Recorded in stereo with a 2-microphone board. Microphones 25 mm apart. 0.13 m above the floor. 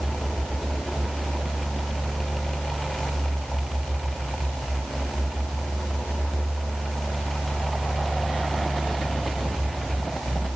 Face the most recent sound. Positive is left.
No sound to turn to.